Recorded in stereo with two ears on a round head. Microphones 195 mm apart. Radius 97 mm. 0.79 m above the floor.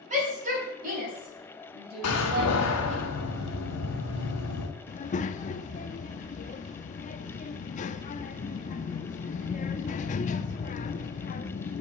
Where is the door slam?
75° left (ahead or behind), 2 m.